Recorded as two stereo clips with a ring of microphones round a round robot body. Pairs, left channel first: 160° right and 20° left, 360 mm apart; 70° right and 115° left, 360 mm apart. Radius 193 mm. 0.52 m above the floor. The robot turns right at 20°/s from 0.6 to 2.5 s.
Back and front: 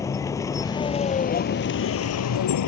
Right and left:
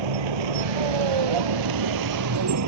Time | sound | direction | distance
0.0 | a vehicle | 120° left | ?